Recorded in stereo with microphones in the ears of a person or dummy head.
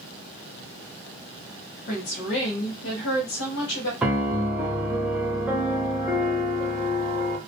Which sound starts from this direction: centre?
A piano, at 4.0 s.